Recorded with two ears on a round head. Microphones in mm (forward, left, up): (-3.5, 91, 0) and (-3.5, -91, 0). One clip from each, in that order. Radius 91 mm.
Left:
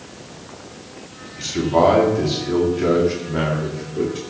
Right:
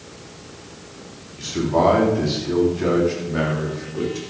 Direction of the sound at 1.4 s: 15° left (ahead or behind).